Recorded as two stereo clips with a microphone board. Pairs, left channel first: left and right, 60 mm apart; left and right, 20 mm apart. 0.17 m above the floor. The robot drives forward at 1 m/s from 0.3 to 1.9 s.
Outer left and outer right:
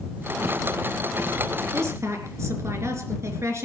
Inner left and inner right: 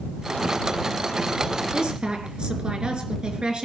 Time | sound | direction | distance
1.7 | a woman speaking | 50° right (ahead or behind) | 3 m